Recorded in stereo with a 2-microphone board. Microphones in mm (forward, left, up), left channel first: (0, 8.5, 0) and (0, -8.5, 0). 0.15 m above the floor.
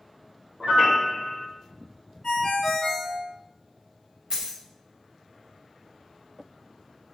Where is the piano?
60° right (ahead or behind), 1.0 m.